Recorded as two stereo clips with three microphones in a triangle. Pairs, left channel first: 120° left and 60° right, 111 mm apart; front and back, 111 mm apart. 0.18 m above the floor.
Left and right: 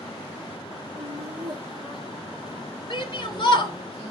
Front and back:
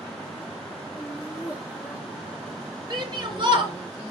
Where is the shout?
155° left, 2.5 m.